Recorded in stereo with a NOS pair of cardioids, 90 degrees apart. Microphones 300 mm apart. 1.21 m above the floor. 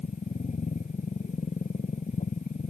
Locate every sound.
0.0 s a machine running: 25° left